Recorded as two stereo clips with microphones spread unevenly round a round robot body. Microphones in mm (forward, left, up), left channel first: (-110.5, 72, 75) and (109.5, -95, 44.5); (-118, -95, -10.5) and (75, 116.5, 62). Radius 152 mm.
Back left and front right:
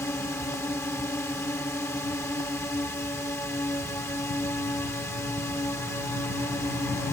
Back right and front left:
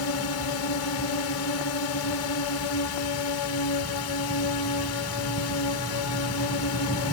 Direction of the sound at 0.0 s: 135° right.